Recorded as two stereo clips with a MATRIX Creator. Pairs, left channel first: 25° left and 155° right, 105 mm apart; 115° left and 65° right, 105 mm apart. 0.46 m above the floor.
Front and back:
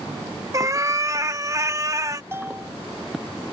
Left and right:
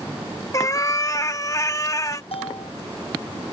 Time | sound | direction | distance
0.5 | a cat meowing | 155° left | ?
2.3 | a bell | 135° left | ?